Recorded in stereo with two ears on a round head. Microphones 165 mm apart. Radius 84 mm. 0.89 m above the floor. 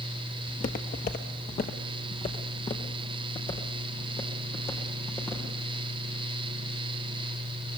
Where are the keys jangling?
I don't hear keys jangling.